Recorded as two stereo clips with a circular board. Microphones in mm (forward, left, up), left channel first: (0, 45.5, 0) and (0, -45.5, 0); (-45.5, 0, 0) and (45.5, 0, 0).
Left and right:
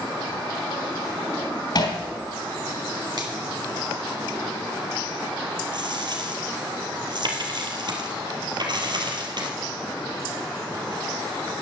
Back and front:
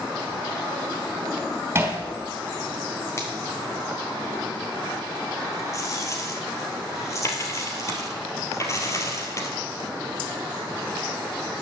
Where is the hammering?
60° left, 3 m.